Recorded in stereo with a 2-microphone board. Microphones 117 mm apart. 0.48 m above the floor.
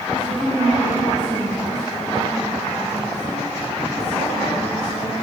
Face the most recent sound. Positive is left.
turn(degrees=-5)  # may be behind; listen again after turning